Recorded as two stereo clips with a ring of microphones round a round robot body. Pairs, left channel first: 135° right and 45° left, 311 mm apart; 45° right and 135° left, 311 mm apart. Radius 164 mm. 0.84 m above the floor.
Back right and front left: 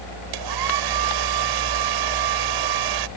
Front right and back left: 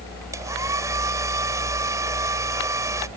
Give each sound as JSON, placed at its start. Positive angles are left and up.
{"t": 0.3, "sound": "a hair dryer", "azimuth_deg": 55}